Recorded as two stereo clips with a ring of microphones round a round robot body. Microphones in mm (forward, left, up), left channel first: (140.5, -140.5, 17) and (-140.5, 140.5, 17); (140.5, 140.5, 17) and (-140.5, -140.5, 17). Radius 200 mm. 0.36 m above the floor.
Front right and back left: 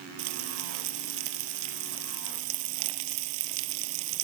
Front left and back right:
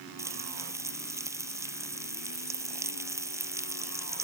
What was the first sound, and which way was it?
Frying, 140° left.